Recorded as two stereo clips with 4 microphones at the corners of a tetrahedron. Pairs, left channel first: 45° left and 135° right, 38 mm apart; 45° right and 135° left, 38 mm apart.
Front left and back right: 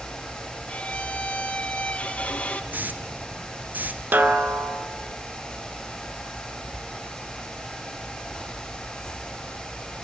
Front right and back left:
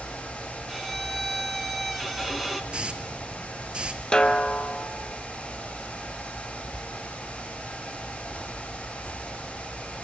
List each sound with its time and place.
0.7 s a violin: 45° left, 1.2 m
2.7 s a hiss: 165° right, 0.9 m
4.1 s a snare drum: 115° right, 0.8 m